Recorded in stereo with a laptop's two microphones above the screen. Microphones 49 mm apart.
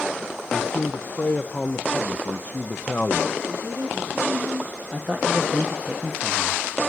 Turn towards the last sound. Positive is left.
turn(degrees=-30)  # may be behind; listen again after turning